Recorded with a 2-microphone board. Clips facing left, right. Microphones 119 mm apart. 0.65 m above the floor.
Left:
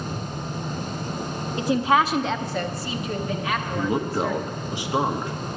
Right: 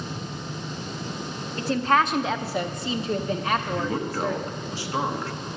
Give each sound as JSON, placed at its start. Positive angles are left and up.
{"t": 1.6, "sound": "a woman speaking", "side_deg": 15, "distance_m": 0.8}
{"t": 3.8, "sound": "a man speaking", "side_deg": 15, "distance_m": 0.9}